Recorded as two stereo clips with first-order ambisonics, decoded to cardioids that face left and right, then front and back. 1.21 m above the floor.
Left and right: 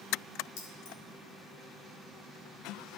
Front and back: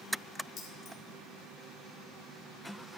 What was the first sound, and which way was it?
Keys jangling, 60° left.